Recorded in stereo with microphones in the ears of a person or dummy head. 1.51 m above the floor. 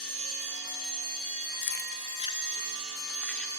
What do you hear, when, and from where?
1.6 s keys jangling: 55° left (ahead or behind), 1.1 m; by 3.5 s 10° left (ahead or behind), 2 m